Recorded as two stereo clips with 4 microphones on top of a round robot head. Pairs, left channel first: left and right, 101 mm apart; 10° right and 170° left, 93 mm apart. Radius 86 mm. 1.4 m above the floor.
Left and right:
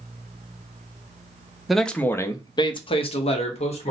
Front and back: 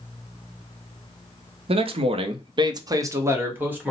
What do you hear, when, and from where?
1.7 s a man speaking: straight behind, 0.7 m; by 3.9 s 95° left, 1.3 m